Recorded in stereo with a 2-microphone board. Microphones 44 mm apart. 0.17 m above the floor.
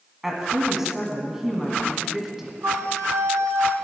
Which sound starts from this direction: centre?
A woman speaking, at 0.2 s.